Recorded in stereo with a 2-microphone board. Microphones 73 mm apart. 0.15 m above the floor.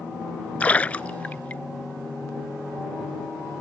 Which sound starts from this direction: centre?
A splash, at 0.6 s.